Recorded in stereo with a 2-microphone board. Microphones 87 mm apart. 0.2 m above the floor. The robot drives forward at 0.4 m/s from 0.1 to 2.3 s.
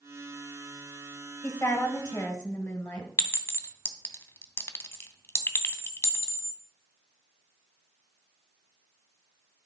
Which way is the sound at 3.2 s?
30° left (ahead or behind).